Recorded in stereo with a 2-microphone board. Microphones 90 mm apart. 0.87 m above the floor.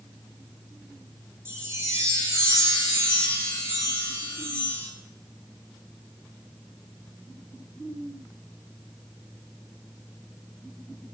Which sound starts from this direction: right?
A chime, at 1.4 s.